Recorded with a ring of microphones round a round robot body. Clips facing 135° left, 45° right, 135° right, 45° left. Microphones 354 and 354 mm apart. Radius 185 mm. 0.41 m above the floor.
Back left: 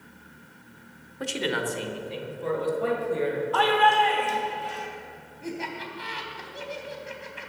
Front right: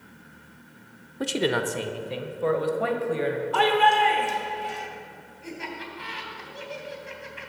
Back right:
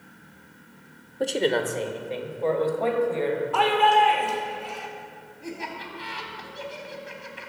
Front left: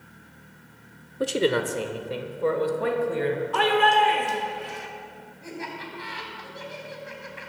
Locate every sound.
1.2 s a man speaking: 30° right, 1.0 m; by 3.4 s 25° right, 2.5 m
3.5 s a shout: 10° right, 1.6 m
5.4 s laughter: 175° left, 3 m